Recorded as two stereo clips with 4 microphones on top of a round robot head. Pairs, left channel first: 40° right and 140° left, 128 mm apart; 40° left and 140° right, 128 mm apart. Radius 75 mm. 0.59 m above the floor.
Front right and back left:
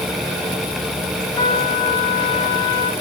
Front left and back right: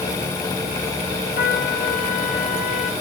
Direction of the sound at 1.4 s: 25° left.